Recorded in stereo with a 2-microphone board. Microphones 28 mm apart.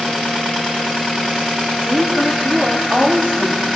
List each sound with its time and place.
1.8 s a woman speaking: 65° right (ahead or behind), 2.5 m